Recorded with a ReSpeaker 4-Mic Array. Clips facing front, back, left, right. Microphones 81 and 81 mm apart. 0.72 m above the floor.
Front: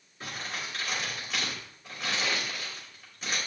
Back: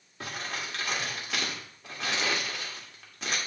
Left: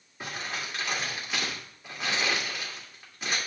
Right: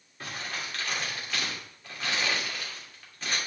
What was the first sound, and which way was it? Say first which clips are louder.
Crumpling: back 1 dB, left 1 dB; 165° left.